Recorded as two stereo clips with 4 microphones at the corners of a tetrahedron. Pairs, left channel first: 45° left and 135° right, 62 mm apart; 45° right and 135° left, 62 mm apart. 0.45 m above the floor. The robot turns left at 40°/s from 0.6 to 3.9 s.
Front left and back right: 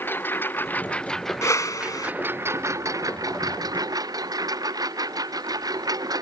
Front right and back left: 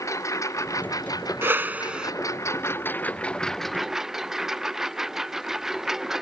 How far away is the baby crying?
No baby crying in this recording.